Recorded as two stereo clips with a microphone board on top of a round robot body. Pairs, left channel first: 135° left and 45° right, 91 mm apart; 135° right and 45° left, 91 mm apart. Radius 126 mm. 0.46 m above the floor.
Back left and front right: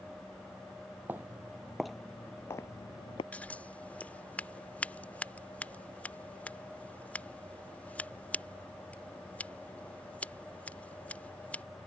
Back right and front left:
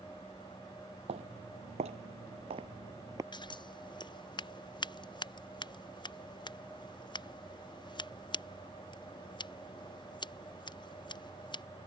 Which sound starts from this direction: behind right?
Scissors, at 3.3 s.